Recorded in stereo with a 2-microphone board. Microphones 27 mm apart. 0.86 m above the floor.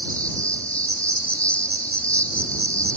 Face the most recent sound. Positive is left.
turn(degrees=55)  # may be behind; listen again after turning